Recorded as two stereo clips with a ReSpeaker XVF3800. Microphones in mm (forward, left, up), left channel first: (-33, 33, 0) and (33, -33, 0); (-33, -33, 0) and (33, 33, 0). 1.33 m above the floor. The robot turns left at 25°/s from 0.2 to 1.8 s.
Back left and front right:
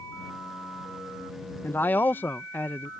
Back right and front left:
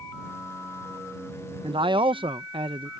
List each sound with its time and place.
1.6 s a man speaking: 70° left